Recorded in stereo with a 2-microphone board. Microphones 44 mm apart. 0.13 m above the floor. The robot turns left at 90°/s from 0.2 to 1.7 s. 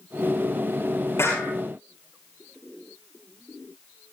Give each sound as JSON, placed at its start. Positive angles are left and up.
{"t": 1.2, "sound": "a clap", "side_deg": 80, "distance_m": 9.0}